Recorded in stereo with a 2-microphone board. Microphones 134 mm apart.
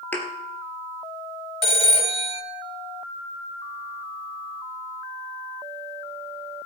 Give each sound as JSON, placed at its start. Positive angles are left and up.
{"t": 0.1, "sound": "a thud", "side_deg": 15, "distance_m": 2.5}
{"t": 1.6, "sound": "a phone ringing", "side_deg": 50, "distance_m": 1.5}